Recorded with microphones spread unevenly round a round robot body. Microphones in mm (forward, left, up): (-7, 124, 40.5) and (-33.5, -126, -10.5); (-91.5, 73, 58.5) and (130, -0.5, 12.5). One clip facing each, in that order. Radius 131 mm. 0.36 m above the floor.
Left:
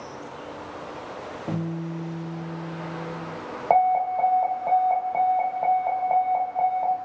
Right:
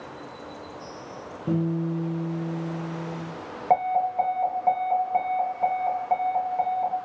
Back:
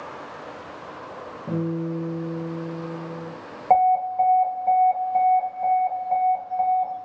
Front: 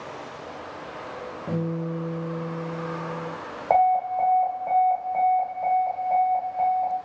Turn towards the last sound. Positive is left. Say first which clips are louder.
# left 2 dB, back 2 dB
turn(degrees=-145)